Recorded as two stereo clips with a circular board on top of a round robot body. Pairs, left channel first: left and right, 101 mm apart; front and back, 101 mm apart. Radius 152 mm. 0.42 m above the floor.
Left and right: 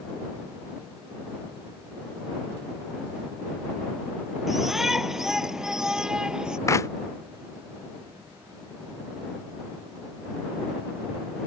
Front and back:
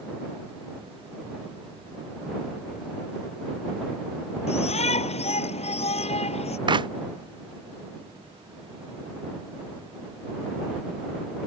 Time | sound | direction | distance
4.5 | a shout | 5° right | ?
6.7 | a clap | 145° left | ?